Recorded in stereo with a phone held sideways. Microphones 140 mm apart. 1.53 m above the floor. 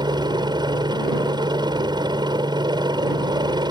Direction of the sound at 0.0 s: 30° right (ahead or behind).